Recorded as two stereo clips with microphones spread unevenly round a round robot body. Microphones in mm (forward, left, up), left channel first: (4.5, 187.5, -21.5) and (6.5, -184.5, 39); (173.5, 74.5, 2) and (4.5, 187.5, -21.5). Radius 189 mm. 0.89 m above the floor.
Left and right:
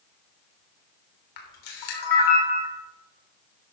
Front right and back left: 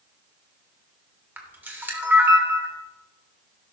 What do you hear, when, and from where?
1.4 s a camera shutter: 65° left, 3 m